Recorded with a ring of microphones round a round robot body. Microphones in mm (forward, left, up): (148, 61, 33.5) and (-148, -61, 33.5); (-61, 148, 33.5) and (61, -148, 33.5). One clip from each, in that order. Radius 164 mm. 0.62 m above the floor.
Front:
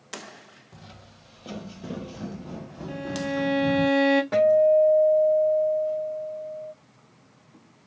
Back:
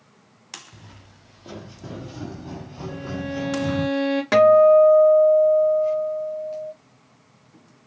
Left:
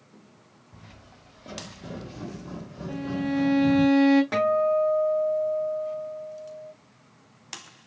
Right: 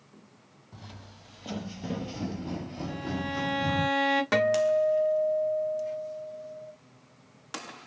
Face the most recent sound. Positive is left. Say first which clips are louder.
# back 7 dB, left 1 dB
turn(degrees=-135)